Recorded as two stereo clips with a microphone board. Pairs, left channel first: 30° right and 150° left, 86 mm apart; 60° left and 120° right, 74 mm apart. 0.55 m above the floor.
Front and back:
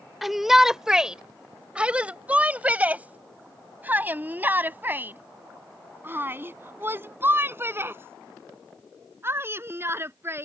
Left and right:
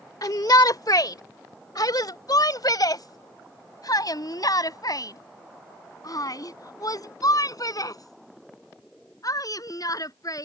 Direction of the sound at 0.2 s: 65° left.